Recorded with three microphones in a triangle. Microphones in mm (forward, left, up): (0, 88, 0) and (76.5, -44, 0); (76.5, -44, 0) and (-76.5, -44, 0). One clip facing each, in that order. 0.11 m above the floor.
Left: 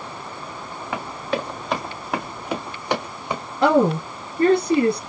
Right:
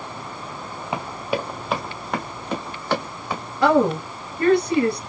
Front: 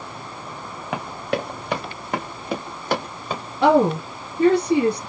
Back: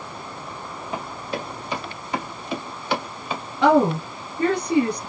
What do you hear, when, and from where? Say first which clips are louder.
0.9 s running footsteps: even, front 5 dB; 10° left, 1.4 m; by 3.4 s 50° left, 2.5 m
3.6 s a woman speaking: left 1 dB, front 1 dB; 70° left, 1.9 m